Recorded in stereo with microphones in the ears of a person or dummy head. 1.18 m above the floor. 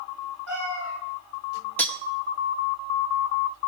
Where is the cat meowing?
15° left (ahead or behind), 7 m.